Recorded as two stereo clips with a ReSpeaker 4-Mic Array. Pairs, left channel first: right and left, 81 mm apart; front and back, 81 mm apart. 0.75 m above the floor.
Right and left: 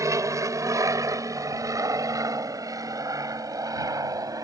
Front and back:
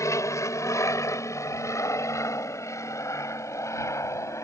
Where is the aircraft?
45° left; by 4.5 s 50° left.